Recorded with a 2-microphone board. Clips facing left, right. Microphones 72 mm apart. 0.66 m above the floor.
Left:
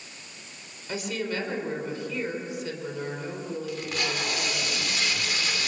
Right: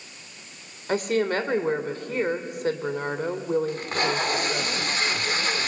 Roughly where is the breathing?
No breathing in this recording.